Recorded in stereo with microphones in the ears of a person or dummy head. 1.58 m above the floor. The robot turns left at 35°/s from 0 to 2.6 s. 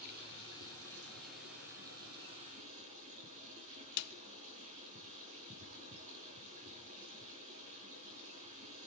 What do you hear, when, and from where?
0.0 s running water: 50° right, 8 m; by 8.9 s 140° right, 8 m
4.0 s a snare drum: 70° left (ahead or behind), 0.5 m